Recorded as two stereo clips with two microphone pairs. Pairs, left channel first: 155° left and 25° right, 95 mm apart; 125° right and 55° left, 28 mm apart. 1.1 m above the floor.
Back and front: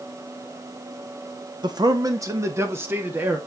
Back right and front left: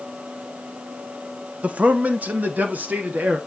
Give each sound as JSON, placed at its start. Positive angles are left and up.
{"t": 1.6, "sound": "a man speaking", "azimuth_deg": 15, "distance_m": 1.2}